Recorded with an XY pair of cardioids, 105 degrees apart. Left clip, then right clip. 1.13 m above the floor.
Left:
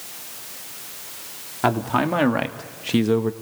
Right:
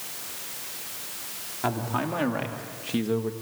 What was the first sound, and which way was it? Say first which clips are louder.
A man speaking: left 8 dB; 55° left.